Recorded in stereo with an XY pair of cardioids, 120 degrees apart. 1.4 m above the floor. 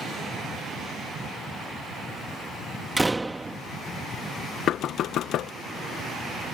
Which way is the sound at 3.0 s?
10° right.